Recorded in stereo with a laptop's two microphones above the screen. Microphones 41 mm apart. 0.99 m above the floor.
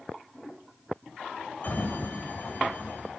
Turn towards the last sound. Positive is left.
turn(degrees=50)  # may be behind; listen again after turning